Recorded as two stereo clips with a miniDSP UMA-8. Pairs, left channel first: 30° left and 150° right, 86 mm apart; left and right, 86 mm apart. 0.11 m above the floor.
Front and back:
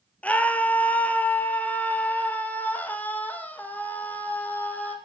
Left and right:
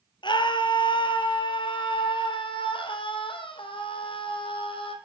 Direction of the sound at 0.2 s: 105° left.